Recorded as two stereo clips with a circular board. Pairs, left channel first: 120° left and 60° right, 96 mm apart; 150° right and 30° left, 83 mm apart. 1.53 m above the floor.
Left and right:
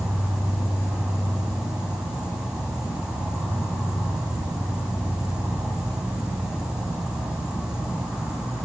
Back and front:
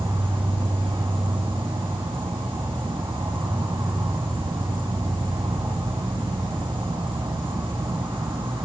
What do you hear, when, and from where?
0.0 s an insect: 20° left, 9 m